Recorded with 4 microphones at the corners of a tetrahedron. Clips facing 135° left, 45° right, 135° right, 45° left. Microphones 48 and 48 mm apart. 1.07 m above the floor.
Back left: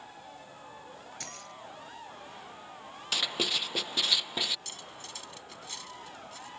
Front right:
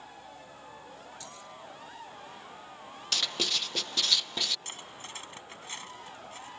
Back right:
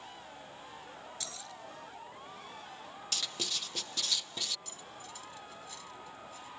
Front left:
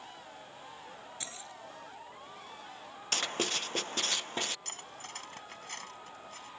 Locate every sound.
1.2 s keys jangling: 110° left
3.1 s writing: 65° left
4.7 s cutlery clinking: 15° left